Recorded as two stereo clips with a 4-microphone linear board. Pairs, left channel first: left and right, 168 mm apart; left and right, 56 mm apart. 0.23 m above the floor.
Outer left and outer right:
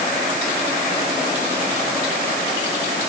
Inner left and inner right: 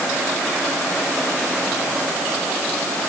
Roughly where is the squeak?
I don't hear a squeak.